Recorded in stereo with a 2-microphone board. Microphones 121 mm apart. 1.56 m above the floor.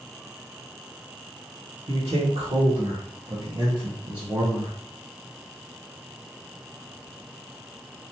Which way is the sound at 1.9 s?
80° right.